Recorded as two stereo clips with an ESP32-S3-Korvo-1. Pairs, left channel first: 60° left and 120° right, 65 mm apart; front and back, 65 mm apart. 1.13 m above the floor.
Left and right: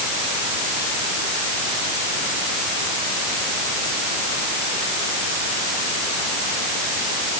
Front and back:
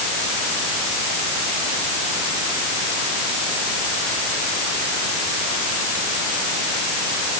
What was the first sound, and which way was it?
Only background noise.